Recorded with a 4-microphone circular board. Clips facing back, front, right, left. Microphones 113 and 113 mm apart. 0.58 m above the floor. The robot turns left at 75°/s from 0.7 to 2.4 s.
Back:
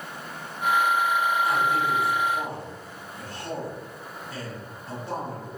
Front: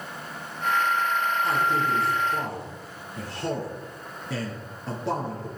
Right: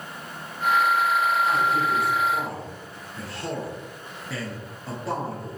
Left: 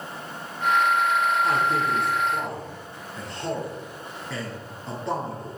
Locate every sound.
1.4 s a man speaking: 70° left, 7 m; by 5.6 s 5° right, 7 m